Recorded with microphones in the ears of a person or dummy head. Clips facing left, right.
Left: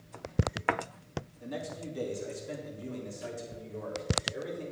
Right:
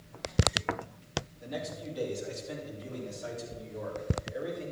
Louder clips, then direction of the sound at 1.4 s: Left 2 dB; 50° left (ahead or behind).